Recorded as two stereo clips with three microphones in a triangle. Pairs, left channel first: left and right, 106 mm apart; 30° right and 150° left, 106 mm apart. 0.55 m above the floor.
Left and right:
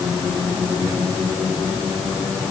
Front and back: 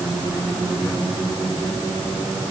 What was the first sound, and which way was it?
Only background noise.